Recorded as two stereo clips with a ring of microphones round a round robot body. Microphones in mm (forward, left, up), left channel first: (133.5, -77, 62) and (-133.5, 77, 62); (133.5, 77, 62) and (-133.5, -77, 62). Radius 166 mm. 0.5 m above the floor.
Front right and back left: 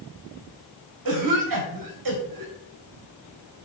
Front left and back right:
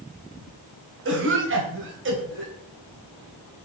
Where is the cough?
160° left, 3 m.